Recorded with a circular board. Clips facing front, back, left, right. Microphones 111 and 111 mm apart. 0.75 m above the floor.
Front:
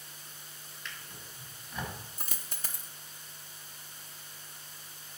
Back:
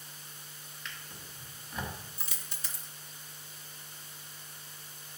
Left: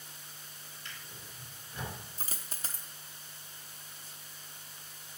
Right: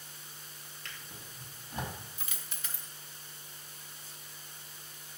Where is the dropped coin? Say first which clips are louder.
Front 2 dB, left 2 dB; 40° left, 0.6 m.